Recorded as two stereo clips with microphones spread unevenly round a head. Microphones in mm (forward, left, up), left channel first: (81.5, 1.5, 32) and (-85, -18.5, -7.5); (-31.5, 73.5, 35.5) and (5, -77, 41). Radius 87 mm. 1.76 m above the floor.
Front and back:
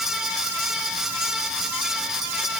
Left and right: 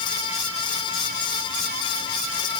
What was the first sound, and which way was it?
Only background noise.